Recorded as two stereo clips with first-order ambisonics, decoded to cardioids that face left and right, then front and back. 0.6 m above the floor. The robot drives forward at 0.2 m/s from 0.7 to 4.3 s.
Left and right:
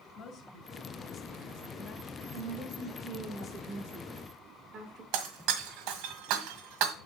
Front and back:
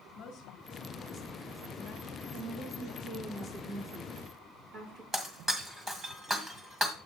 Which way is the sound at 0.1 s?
40° left.